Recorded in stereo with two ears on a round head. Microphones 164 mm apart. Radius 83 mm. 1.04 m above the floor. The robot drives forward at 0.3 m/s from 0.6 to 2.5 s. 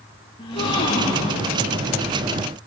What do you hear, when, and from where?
0.4 s a gasp: 30° left (ahead or behind), 8 m